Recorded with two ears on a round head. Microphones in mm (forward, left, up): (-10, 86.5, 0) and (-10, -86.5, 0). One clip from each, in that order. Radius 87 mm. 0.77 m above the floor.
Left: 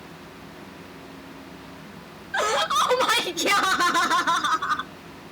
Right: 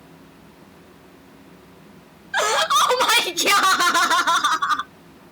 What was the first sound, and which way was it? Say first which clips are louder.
Laughter: right 4 dB; 30° right (ahead or behind).